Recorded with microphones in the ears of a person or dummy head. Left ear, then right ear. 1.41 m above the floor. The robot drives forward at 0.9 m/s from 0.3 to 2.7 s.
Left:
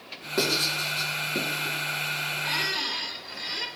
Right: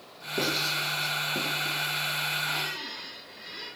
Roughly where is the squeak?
Left.